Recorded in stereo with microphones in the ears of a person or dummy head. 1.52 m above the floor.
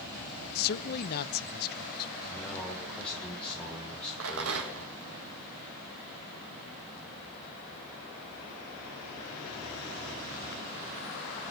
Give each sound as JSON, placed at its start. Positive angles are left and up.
{"t": 0.6, "sound": "a man speaking", "side_deg": 50, "distance_m": 1.1}
{"t": 2.3, "sound": "a man speaking", "side_deg": 10, "distance_m": 6.5}
{"t": 4.2, "sound": "a rattle", "side_deg": -65, "distance_m": 2.0}